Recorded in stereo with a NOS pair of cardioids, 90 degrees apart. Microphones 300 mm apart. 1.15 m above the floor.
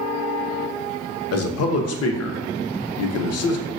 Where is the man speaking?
60° left, 0.6 m.